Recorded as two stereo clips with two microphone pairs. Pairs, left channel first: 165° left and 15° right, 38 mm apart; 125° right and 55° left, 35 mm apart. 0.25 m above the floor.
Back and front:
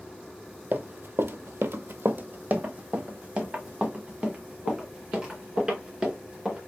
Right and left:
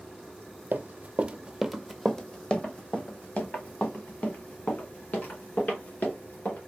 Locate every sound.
0.7 s running footsteps: 30° left, 0.6 m; by 6.6 s 90° right, 3 m